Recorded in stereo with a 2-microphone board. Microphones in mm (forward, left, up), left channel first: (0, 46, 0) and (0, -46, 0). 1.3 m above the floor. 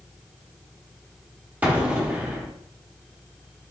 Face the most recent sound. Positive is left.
turn(degrees=-20)  # may be behind; listen again after turning